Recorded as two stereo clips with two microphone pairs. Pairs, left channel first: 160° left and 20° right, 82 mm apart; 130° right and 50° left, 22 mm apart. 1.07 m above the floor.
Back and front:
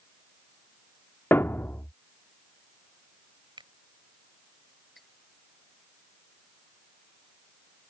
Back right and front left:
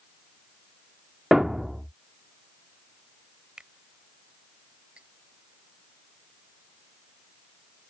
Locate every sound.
1.3 s a thud: 110° left
3.6 s a finger snap: straight ahead
5.0 s cutlery clinking: 70° left